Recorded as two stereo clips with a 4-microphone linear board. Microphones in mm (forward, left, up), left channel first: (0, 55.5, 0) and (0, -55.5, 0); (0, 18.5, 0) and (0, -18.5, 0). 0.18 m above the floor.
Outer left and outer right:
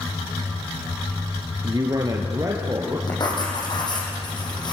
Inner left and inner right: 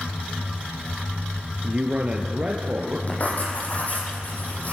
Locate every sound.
1.6 s a man speaking: 35° right (ahead or behind), 2.5 m; by 3.0 s 25° right (ahead or behind), 4 m
3.1 s writing: 40° left (ahead or behind), 6.5 m